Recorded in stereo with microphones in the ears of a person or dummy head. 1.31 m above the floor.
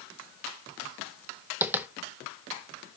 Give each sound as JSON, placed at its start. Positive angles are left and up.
{"t": 1.6, "sound": "tapping", "side_deg": -10, "distance_m": 0.5}